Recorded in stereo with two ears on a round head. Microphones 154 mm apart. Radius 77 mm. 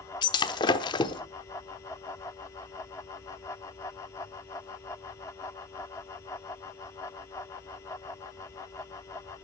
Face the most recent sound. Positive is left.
turn(degrees=25)  # may be behind; listen again after turning